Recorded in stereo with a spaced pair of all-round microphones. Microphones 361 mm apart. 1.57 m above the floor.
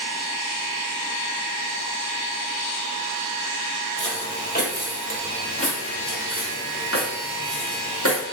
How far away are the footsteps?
About 1.6 m.